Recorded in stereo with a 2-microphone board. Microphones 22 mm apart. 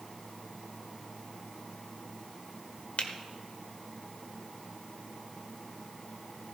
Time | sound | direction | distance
3.0 | a finger snap | 80° left | 1.4 m